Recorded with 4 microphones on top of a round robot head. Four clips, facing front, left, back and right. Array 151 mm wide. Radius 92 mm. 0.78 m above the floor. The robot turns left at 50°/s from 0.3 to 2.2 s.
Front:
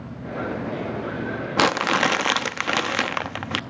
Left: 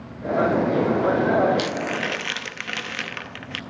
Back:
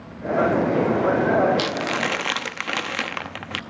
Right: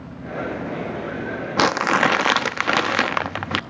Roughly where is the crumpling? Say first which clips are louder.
Right 7 dB, front 4 dB; ahead right.